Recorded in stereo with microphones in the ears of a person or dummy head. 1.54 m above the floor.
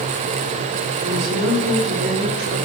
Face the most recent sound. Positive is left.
turn(degrees=-65)  # may be behind; listen again after turning